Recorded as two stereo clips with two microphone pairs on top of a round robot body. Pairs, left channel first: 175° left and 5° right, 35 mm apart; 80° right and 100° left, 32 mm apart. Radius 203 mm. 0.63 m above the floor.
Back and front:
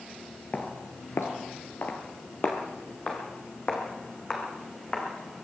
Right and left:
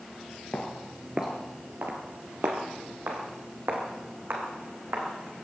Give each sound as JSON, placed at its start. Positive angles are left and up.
{"t": 0.5, "sound": "footsteps", "azimuth_deg": -120, "distance_m": 0.8}